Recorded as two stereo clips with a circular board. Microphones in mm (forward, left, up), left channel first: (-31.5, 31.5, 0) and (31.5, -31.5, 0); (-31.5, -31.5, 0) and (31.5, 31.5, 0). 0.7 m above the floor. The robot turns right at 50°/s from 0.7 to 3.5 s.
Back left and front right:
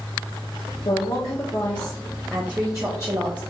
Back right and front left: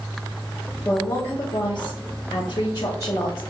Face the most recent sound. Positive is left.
turn(degrees=-65)